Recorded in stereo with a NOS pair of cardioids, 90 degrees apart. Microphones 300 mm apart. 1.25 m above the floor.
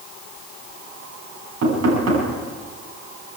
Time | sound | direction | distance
1.6 | knocking | 55° right | 9.5 m